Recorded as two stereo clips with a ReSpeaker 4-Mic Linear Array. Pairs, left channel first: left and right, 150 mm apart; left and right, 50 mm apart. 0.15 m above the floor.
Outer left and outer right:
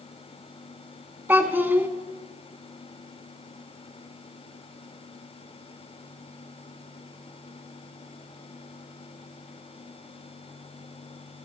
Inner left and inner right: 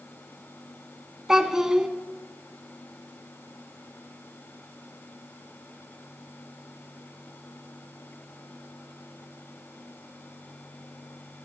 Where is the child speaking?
15° right (ahead or behind), 0.6 m.